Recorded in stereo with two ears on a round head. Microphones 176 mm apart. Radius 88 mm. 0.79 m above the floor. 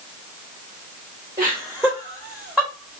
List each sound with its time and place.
1.4 s laughter: 15° right (ahead or behind), 3.5 m; by 3.0 s centre (ahead or behind), 3.5 m